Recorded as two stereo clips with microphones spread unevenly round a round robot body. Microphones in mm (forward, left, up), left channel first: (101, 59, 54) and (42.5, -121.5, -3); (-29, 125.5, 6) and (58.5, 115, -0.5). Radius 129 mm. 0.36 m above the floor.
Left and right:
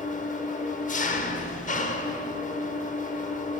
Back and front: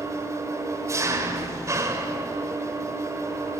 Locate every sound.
0.0 s an engine running: 20° left, 1.1 m